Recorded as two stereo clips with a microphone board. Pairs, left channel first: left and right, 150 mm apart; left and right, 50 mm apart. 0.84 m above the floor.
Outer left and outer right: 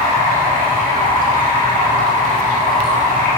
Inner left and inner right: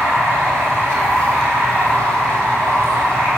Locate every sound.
0.0 s running water: 65° right (ahead or behind), 4.5 m